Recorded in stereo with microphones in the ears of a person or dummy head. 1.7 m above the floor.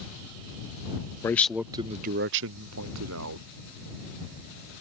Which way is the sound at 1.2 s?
10° left (ahead or behind).